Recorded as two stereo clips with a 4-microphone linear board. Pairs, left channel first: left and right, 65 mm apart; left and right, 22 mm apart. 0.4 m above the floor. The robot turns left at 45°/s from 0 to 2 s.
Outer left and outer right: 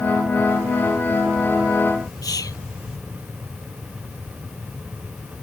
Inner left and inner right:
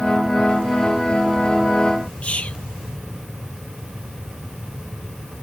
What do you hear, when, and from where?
2.2 s whispering: 70° left (ahead or behind)